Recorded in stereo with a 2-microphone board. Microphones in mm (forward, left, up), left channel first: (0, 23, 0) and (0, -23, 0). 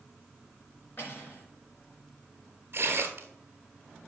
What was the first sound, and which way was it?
Cutlery clinking, 45° left (ahead or behind).